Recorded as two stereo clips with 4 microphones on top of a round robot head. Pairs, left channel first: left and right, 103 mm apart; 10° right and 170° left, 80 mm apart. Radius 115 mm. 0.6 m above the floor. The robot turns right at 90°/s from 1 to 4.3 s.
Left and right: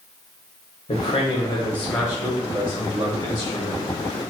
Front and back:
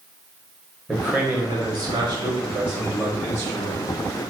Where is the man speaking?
90° left, 1.4 m; by 4.3 s 25° left, 1.4 m.